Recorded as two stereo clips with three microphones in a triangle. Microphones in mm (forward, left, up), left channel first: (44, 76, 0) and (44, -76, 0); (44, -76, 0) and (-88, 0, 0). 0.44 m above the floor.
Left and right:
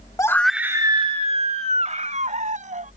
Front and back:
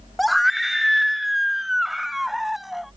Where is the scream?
60° left; by 2.9 s 120° right.